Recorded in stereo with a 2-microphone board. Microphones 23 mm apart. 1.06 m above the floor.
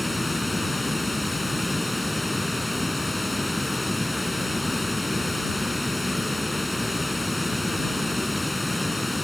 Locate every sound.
0.0 s running water: centre (ahead or behind)